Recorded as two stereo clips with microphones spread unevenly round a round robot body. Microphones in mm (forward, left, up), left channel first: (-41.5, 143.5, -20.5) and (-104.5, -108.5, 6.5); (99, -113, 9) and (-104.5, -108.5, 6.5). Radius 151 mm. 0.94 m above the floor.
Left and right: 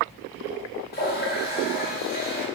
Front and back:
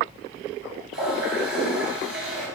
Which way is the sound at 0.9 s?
130° left.